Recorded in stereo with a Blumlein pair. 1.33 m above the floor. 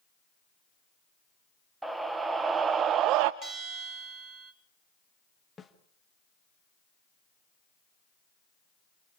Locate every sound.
1.8 s a scream: 10° right, 1.3 m; by 3.3 s 45° right, 0.5 m
3.4 s a bell: 25° right, 3.5 m
5.6 s a snare drum: 10° left, 1.7 m